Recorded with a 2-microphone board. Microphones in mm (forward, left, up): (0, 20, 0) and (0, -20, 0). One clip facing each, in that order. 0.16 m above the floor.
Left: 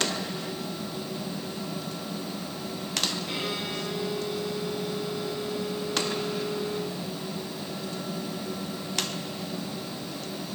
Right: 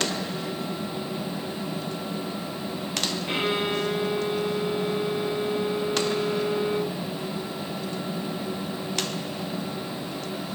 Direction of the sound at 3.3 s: 35° right (ahead or behind).